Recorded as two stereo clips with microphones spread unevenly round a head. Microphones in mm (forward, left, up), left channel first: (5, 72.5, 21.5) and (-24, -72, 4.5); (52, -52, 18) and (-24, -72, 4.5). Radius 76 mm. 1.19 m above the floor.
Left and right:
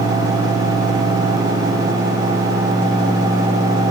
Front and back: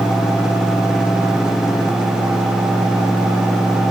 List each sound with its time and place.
Only background noise.